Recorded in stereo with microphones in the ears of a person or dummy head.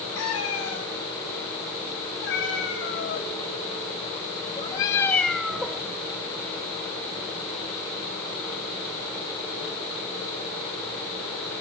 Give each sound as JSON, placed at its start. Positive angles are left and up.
{"t": 0.1, "sound": "a cat meowing", "side_deg": 80, "distance_m": 6.5}